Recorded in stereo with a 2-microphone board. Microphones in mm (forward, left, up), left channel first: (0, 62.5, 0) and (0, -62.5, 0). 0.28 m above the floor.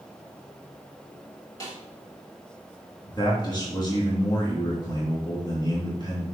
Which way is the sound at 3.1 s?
35° left (ahead or behind).